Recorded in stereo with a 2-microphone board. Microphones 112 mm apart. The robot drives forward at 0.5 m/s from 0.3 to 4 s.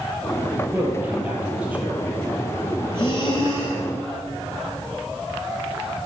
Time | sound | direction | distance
0.7 | a man speaking | 15° right (ahead or behind) | 3.5 m
2.9 | breathing | 45° left (ahead or behind) | 4 m